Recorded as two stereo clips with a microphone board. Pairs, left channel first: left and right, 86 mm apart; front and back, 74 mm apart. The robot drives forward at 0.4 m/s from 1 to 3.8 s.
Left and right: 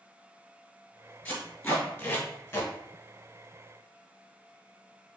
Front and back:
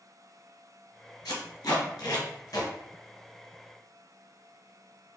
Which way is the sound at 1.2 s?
20° left.